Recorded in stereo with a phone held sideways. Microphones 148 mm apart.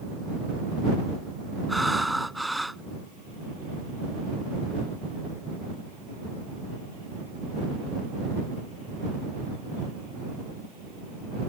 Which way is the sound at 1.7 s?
Centre (ahead or behind).